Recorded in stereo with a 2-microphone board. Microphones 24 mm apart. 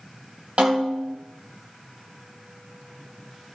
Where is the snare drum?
55° right (ahead or behind), 4 m.